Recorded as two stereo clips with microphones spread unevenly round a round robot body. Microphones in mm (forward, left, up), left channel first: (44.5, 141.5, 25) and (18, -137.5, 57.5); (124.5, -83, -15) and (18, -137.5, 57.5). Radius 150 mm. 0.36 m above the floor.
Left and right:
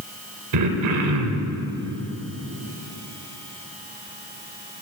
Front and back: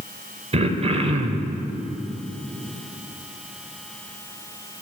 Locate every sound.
0.5 s throat clearing: 95° right, 1.0 m